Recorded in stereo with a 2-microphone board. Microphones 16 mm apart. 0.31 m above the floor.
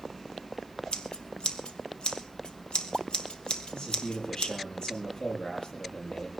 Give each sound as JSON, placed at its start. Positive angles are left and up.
{"t": 0.9, "sound": "scissors", "side_deg": 70, "distance_m": 2.0}
{"t": 3.7, "sound": "a man speaking", "side_deg": 80, "distance_m": 7.5}